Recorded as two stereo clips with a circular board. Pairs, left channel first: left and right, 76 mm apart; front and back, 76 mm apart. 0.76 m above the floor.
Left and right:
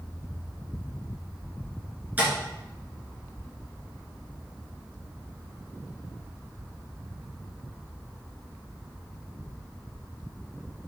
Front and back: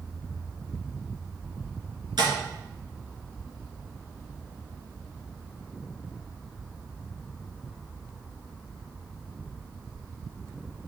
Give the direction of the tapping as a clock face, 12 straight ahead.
5 o'clock.